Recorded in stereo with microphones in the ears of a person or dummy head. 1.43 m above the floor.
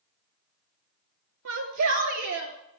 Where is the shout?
65° right (ahead or behind), 2.5 m; by 2.5 s 60° right (ahead or behind), 3.5 m.